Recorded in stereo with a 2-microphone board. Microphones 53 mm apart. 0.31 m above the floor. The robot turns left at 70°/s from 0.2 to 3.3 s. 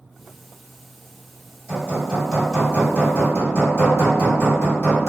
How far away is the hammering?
About 1.5 m.